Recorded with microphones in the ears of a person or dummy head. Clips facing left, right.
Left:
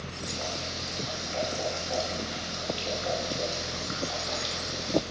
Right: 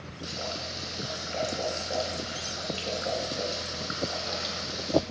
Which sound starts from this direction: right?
Boiling, at 0.2 s.